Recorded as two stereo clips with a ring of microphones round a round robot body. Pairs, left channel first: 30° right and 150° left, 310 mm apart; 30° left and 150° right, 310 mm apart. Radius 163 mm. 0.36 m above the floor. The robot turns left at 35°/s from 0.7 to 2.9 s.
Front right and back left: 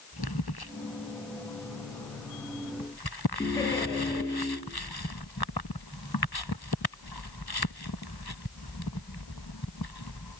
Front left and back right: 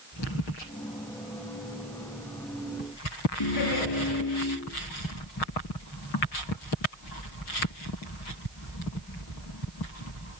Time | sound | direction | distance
3.4 | laughter | 50° left | 7.5 m